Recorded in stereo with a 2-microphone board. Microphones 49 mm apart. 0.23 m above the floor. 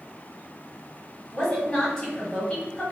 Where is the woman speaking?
15° left (ahead or behind), 1.6 m.